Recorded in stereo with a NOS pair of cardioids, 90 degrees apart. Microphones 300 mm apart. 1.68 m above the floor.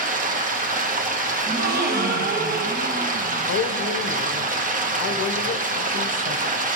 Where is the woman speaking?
55° left, 1.1 m.